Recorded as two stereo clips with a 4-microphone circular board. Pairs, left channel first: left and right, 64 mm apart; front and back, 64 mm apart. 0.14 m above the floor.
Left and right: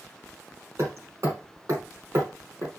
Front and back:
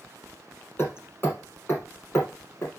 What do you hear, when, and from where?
0.8 s hammering: 50° right, 3.5 m